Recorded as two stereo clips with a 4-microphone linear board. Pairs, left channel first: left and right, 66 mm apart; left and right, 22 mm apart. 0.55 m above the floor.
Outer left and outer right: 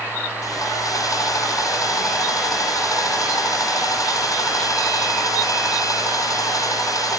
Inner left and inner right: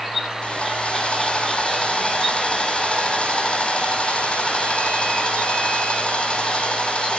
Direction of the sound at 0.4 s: 65° left (ahead or behind).